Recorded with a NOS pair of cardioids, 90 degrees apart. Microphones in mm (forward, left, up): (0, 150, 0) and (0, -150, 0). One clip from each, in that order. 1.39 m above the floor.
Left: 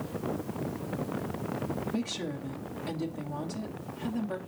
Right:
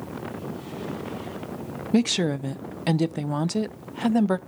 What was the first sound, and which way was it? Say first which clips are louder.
A woman speaking: right 11 dB; 65° right.